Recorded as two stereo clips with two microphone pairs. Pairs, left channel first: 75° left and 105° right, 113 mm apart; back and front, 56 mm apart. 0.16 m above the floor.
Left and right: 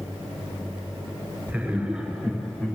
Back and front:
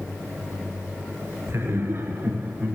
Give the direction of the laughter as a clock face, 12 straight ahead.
1 o'clock.